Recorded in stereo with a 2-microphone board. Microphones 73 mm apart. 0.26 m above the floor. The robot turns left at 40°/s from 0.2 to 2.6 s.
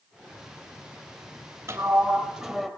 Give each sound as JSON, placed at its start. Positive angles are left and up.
{"t": 1.7, "sound": "a sliding door", "azimuth_deg": -145, "distance_m": 3.5}